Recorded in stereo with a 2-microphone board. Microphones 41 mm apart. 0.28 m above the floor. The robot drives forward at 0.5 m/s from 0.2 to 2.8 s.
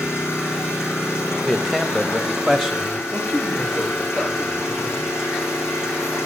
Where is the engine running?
80° left, 8 m; by 6.3 s 75° left (ahead or behind), 8.5 m.